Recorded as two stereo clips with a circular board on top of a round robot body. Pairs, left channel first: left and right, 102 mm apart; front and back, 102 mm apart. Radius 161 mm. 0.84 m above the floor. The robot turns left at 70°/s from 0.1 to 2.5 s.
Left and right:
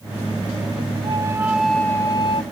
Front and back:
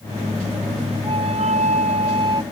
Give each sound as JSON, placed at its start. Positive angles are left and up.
{"t": 1.0, "sound": "a flute", "azimuth_deg": -135}